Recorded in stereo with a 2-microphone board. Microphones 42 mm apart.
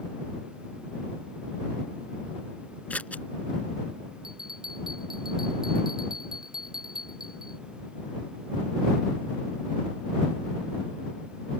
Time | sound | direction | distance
2.9 | scissors | 35° left (ahead or behind) | ?
4.2 | a bell | 10° right (ahead or behind) | ?